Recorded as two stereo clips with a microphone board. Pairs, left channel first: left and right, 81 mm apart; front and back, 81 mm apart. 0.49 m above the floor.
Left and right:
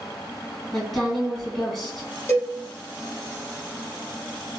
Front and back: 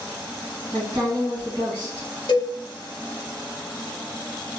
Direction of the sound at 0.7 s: Straight behind.